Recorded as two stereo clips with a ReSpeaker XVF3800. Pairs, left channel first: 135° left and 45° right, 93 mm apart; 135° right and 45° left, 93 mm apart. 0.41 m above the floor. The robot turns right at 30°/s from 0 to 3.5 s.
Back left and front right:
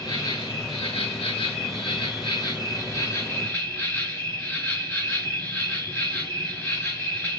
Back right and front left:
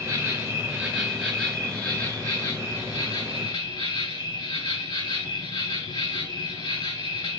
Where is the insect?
105° left, 5 m; by 7.4 s 150° right, 5 m.